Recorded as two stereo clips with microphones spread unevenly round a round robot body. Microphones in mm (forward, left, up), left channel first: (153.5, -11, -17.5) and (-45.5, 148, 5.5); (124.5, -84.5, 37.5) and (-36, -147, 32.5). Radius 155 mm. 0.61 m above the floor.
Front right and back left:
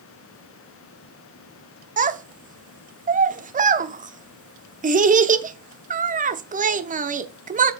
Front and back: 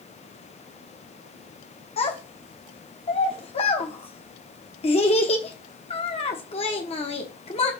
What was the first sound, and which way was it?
A child speaking, 80° left.